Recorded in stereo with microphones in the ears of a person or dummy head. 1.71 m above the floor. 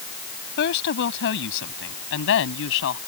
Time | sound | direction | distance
0.6 | a woman speaking | 65° left (ahead or behind) | ?